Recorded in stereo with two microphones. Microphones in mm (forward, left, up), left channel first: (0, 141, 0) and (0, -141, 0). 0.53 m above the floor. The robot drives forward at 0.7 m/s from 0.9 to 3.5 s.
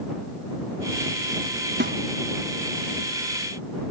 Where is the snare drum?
40° right (ahead or behind); by 2.0 s 45° right (ahead or behind).